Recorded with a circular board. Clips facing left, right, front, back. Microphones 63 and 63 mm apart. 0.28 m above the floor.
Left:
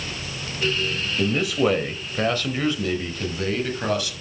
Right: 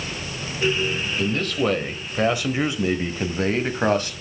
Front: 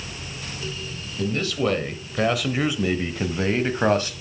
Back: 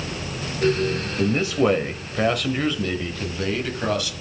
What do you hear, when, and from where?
1.2 s a man speaking: 155° left, 1.0 m; by 4.1 s 45° right, 1.4 m